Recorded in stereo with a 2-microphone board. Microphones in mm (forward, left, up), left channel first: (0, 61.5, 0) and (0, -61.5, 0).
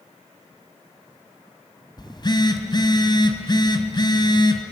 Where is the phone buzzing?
35° left (ahead or behind), 2.0 m.